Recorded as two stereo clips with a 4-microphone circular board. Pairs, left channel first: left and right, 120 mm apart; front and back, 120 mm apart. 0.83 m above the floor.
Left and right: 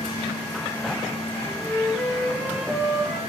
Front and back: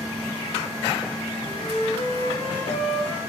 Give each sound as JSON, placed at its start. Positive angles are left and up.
{"t": 1.3, "sound": "a flute", "azimuth_deg": -5, "distance_m": 3.0}